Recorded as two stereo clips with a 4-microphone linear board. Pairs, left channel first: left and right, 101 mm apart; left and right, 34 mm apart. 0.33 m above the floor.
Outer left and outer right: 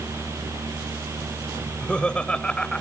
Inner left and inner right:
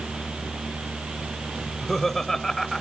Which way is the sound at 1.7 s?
10° left (ahead or behind).